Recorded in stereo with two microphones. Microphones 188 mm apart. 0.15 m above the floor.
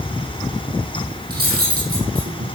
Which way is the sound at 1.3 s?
55° right (ahead or behind).